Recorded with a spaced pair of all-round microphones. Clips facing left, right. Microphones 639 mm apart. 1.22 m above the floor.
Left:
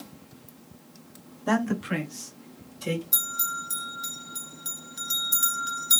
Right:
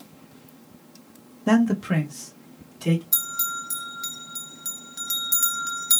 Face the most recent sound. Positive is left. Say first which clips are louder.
# even
turn(degrees=-50)  # may be behind; listen again after turning